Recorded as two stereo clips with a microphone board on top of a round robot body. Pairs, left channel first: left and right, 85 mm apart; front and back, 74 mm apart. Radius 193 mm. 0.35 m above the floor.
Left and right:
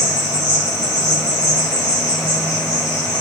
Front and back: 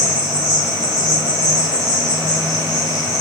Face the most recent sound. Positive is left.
turn(degrees=40)